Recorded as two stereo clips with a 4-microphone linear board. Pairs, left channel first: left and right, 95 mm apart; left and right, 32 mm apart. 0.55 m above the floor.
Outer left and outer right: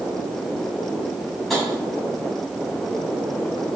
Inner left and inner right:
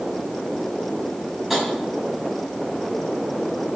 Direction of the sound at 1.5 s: Centre (ahead or behind).